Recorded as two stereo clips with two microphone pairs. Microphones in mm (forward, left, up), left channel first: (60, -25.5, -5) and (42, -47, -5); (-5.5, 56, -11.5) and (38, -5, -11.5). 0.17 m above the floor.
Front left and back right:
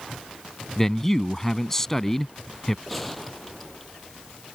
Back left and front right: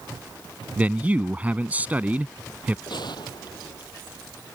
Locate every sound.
0.8 s a man speaking: 10° right
2.9 s a gunshot: 140° left